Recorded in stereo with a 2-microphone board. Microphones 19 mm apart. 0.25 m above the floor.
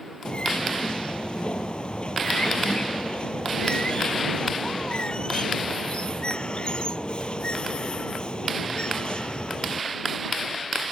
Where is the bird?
60° left (ahead or behind).